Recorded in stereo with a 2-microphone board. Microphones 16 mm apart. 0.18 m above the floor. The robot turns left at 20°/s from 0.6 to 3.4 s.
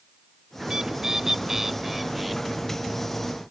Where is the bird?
140° right; by 2.4 s 175° right.